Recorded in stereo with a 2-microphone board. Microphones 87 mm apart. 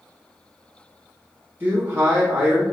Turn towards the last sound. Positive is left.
turn(degrees=-25)  # may be behind; listen again after turning